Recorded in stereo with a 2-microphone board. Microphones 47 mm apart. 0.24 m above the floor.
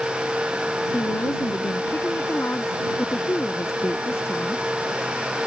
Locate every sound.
0.9 s a woman speaking: 60° left (ahead or behind)